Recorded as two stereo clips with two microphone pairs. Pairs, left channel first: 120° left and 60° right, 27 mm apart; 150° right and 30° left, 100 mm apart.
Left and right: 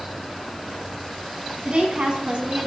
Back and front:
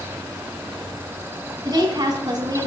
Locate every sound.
1.6 s a woman speaking: 15° right, 5 m